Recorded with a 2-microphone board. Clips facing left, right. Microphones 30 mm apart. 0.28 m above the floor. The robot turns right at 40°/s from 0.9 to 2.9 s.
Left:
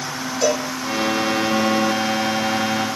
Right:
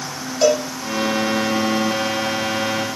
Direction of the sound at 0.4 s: 45° right (ahead or behind).